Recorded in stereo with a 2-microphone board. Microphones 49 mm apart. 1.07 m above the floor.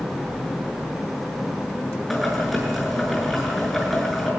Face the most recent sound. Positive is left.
turn(degrees=0)  # may be behind; listen again after turning